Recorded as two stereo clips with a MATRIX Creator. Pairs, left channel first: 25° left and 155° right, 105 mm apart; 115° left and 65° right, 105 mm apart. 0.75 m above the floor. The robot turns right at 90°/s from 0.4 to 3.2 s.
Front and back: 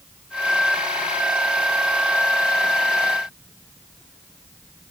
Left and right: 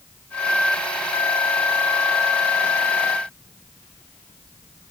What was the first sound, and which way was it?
Only background noise.